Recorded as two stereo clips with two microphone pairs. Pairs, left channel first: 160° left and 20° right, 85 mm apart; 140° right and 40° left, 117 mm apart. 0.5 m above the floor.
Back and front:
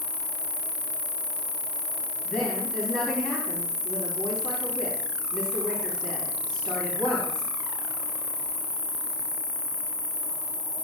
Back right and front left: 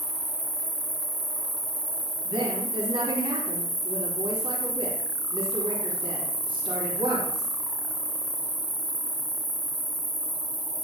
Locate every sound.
0.0 s an insect: 60° left, 2.5 m
2.2 s a woman speaking: 80° left, 4.5 m